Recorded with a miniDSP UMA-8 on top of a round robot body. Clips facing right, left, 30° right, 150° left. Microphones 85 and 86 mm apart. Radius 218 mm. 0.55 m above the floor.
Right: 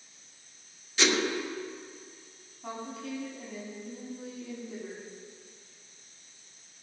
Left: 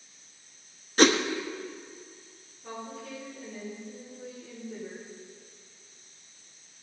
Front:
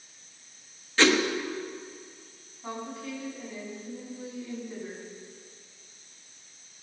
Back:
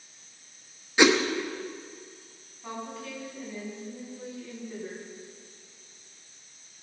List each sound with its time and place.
1.0 s a whoosh: 80° left, 1.3 m
2.6 s a woman speaking: 115° right, 6 m